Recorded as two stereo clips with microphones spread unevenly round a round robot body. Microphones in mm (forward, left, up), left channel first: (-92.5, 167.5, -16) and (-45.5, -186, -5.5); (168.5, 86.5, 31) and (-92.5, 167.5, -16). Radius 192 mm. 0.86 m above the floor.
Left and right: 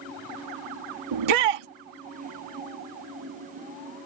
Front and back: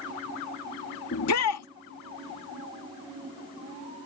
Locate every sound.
1.1 s a shout: 70° right